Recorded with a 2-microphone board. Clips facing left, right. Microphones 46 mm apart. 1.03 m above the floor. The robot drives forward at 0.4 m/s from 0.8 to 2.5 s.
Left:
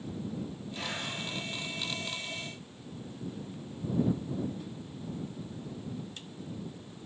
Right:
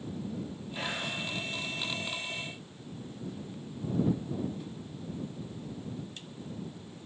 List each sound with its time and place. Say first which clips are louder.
0.8 s whispering: right 3 dB; 25° right (ahead or behind), 3 m